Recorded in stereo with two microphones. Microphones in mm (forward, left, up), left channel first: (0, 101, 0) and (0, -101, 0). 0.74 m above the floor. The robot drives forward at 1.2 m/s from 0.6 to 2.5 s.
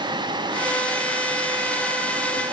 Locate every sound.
Only background noise.